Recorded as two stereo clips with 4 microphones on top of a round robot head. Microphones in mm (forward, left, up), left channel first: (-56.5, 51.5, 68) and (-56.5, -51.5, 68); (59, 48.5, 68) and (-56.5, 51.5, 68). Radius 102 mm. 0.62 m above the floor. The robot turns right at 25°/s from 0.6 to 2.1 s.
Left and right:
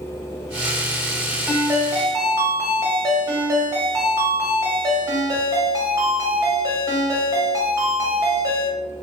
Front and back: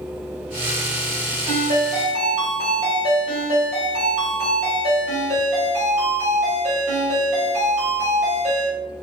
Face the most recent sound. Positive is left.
turn(degrees=-150)